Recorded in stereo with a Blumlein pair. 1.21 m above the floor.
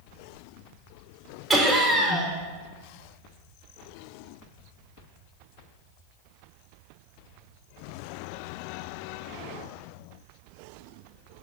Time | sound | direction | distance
1.5 | laughter | 10° right | 0.8 m